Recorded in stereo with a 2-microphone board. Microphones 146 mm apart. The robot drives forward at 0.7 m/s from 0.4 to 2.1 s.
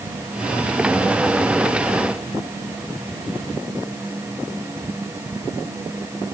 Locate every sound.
Only background noise.